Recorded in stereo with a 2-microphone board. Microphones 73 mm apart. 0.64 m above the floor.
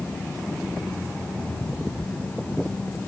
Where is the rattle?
No rattle in this recording.